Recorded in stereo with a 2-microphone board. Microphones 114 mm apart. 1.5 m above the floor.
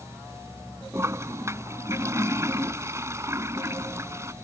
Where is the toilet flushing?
25° right (ahead or behind).